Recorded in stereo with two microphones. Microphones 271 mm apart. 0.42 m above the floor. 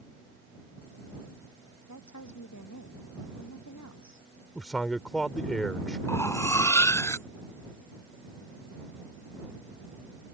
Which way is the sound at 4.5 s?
5° left (ahead or behind).